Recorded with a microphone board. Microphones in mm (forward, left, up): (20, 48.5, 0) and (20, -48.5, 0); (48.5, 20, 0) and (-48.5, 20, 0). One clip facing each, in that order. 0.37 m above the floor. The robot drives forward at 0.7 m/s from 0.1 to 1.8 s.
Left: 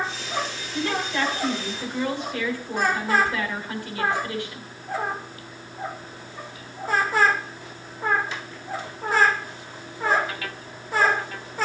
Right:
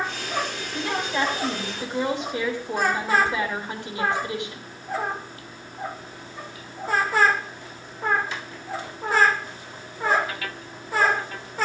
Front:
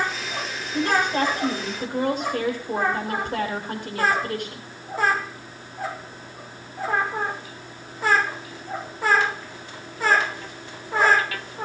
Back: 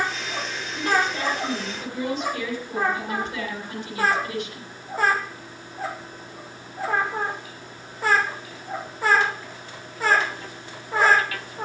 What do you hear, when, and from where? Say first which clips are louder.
0.7 s a woman speaking: even, front 2 dB; 20° right, 4 m; by 4.7 s 25° right, 3.5 m